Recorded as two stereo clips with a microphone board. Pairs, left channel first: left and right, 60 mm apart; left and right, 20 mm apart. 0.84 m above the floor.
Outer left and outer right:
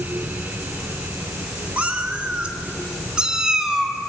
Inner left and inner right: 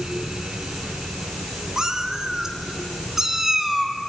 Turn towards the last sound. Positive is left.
turn(degrees=-5)  # may be behind; listen again after turning